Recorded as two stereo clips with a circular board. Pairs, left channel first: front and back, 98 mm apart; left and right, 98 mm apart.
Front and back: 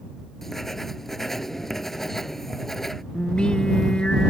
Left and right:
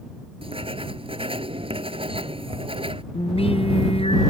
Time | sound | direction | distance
0.4 | writing | 85° right | ?
3.1 | singing | 80° left | ?